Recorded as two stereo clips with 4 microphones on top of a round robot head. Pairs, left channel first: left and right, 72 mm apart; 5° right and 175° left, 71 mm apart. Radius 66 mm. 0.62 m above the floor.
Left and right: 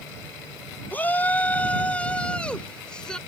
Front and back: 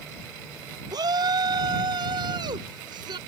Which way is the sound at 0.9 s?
155° left.